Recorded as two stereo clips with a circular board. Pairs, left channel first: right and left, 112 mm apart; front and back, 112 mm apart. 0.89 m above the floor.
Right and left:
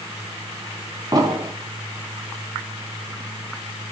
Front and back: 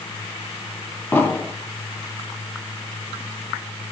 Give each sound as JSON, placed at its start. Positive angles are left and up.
{"t": 1.1, "sound": "an explosion", "azimuth_deg": 65, "distance_m": 0.6}